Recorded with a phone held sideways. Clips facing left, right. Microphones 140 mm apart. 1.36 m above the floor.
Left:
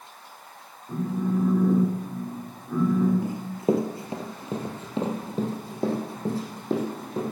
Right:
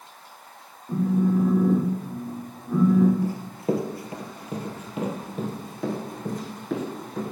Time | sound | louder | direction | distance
0.9 | a phone buzzing | right 4 dB | 15° right (ahead or behind) | 1.9 m
3.2 | running footsteps | left 1 dB | 20° left (ahead or behind) | 1.6 m